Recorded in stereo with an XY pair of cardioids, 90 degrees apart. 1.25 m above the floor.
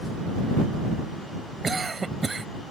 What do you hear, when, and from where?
1.6 s a cough: 30° right